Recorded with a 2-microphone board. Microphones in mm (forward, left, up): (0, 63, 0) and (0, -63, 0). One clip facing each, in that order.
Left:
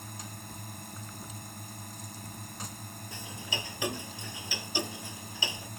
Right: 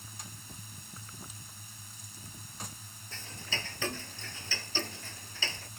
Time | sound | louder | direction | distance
0.0 | a drone | left 6 dB | 60° left (ahead or behind) | ?
3.1 | ticking | left 2 dB | 15° left (ahead or behind) | ?